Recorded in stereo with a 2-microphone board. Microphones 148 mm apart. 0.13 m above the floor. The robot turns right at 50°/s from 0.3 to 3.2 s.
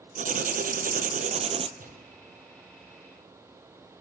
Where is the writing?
110° right, 0.6 m; by 1.7 s 40° right, 0.6 m.